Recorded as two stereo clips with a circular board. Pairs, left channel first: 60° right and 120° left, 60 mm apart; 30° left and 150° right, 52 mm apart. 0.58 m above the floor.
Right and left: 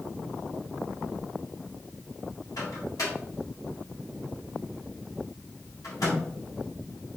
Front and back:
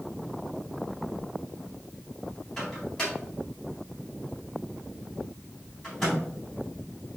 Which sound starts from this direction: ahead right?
A microwave, at 2.6 s.